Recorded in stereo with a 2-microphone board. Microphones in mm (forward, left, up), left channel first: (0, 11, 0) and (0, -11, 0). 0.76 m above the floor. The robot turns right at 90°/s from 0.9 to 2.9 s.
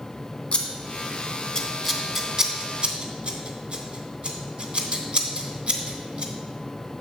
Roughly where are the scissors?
Left.